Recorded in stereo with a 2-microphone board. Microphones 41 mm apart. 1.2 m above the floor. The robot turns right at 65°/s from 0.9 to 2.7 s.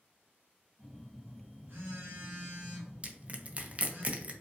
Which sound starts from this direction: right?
Crushing, at 3.0 s.